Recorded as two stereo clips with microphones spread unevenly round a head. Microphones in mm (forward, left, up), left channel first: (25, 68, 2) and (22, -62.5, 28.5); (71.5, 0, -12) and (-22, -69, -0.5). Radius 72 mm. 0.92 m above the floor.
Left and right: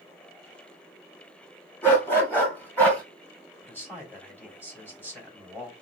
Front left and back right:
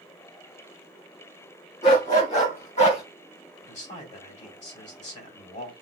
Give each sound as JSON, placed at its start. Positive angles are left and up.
{"t": 1.8, "sound": "a dog barking", "azimuth_deg": 15, "distance_m": 3.0}
{"t": 3.6, "sound": "a man speaking", "azimuth_deg": 15, "distance_m": 3.5}